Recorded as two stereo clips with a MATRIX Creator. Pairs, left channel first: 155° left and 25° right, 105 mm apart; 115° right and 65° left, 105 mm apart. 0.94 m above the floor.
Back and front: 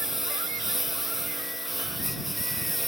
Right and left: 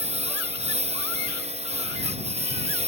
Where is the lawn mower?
65° left; by 2.9 s 70° left.